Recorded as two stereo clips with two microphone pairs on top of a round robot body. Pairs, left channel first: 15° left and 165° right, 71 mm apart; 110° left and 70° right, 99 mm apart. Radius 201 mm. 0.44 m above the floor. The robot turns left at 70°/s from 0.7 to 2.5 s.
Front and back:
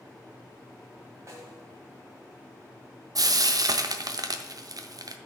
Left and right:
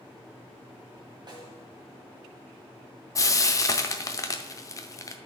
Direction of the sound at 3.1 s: 165° left.